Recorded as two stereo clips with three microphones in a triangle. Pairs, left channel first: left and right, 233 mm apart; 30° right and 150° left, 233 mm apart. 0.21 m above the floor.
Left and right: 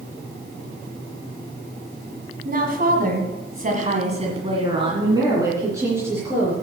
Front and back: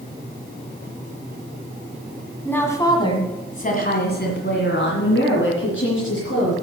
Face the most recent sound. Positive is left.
turn(degrees=-10)